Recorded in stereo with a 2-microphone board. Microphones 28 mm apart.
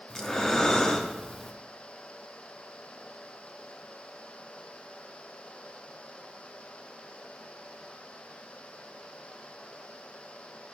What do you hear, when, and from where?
0.1 s breathing: 20° left (ahead or behind), 0.8 m